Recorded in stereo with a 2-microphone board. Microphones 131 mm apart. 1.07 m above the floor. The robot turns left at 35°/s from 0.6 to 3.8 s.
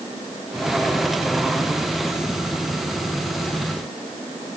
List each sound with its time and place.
Only background noise.